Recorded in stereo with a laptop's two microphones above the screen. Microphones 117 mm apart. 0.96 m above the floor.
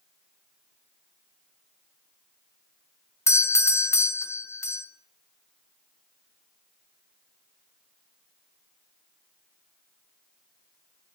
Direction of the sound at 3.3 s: 25° left (ahead or behind).